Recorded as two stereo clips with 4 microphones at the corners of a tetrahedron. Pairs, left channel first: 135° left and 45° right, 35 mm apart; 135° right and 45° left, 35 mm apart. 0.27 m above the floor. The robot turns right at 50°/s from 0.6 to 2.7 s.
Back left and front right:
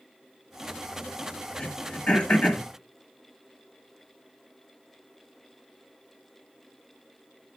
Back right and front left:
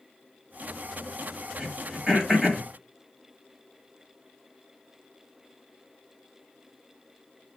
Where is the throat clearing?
90° left, 1.2 m; by 2.6 s 145° left, 1.2 m.